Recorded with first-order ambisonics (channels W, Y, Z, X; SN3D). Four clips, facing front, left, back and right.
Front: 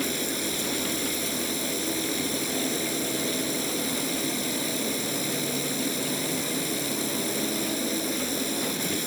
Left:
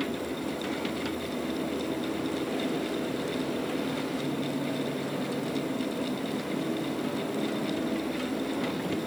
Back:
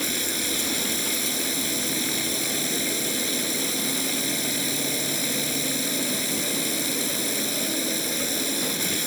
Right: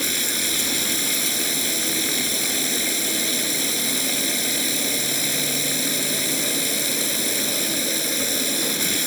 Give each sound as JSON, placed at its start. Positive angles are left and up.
{"t": 0.0, "sound": "running water", "azimuth_deg": -105}